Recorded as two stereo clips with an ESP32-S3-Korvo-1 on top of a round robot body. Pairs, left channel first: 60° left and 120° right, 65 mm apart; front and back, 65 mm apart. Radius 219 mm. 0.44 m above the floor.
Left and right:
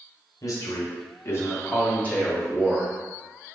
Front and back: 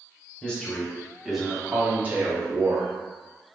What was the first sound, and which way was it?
A man speaking, 70° left.